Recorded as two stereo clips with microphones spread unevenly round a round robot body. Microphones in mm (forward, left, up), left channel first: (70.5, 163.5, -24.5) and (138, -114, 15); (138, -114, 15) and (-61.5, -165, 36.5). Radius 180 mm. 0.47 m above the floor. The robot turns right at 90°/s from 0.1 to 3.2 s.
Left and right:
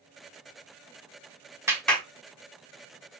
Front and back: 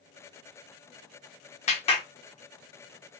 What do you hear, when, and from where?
1.7 s a clap: 10° left, 1.0 m; by 2.0 s 45° left, 1.0 m